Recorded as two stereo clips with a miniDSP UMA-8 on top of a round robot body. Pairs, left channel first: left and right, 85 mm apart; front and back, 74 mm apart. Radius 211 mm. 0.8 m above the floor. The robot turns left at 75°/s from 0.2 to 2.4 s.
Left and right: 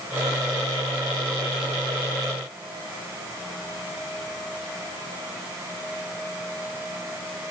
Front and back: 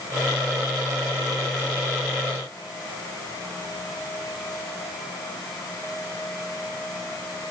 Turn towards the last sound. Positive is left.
No sound to turn to.